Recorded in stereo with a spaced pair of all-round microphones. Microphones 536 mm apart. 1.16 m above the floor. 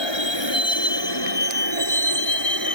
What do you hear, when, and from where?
0.0 s a vehicle: 55° left (ahead or behind); by 2.8 s 40° left (ahead or behind)